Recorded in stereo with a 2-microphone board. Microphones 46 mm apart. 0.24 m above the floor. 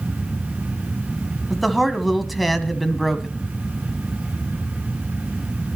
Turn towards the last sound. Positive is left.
turn(degrees=0)  # may be behind; listen again after turning